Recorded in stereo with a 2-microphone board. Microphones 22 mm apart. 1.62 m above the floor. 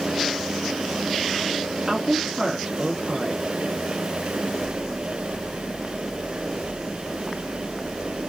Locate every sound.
1.9 s a woman speaking: 30° right (ahead or behind), 2.5 m